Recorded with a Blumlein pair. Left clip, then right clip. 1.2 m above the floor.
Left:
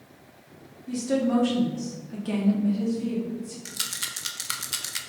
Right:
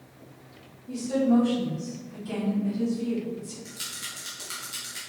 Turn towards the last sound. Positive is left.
turn(degrees=30)